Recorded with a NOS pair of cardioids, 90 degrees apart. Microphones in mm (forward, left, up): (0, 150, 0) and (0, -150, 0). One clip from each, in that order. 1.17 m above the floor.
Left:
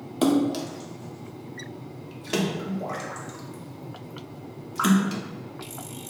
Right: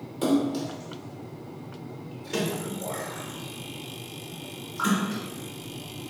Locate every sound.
0.2 s a splash: 45° left, 0.7 m